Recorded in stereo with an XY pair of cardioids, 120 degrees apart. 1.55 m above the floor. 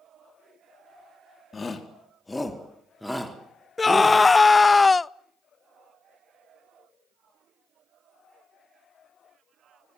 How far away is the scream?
About 0.5 m.